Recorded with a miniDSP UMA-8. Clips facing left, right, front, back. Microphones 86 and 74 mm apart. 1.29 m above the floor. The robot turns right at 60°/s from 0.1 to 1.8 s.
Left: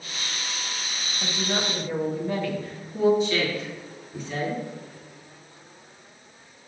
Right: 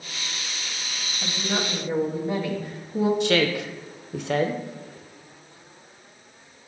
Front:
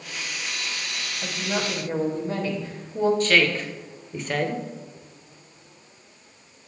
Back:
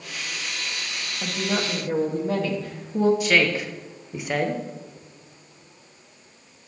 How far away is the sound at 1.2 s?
About 1.6 m.